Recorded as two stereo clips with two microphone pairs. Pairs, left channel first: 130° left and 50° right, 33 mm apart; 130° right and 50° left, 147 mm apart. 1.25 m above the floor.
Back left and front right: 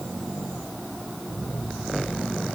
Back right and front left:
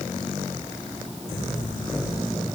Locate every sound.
Only background noise.